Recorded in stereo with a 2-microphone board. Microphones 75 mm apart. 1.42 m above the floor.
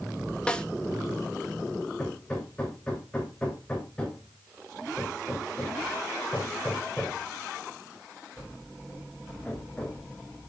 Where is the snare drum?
10° left (ahead or behind), 1.0 m.